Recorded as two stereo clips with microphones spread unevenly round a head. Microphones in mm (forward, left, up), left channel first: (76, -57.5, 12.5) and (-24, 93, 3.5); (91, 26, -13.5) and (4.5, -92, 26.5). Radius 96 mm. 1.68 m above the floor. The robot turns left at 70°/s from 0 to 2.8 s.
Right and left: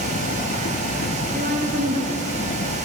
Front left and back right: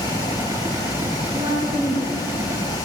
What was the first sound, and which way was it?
A woman speaking, straight behind.